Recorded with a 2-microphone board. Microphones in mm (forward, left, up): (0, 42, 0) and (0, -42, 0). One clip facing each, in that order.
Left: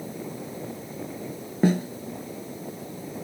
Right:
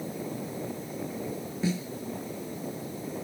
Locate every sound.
1.6 s a snare drum: 55° left (ahead or behind)